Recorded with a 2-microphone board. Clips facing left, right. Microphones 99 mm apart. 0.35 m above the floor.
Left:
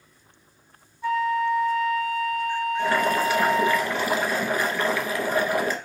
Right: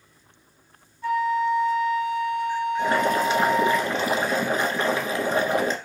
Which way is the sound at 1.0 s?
5° left (ahead or behind).